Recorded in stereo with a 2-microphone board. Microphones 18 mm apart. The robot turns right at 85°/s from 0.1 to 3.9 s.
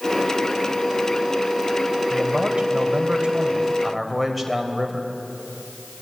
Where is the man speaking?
160° right, 3 m; by 5.1 s 5° right, 3 m.